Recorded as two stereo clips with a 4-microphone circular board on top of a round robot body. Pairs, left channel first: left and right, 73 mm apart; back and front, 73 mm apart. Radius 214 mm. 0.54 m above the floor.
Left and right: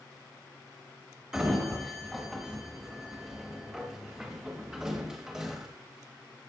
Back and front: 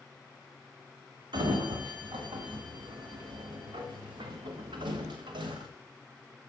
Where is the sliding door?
10° right, 0.9 m.